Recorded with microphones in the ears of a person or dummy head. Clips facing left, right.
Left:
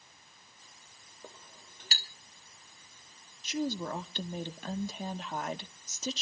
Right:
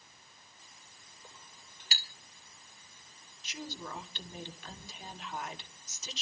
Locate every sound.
1.2 s a clink: 40° left (ahead or behind), 2.5 m
3.4 s a woman speaking: 40° left (ahead or behind), 1.9 m